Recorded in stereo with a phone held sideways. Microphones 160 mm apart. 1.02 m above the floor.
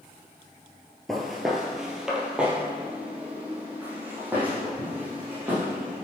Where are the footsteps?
Centre (ahead or behind), 1.0 m; by 6.0 s 10° right (ahead or behind), 3 m.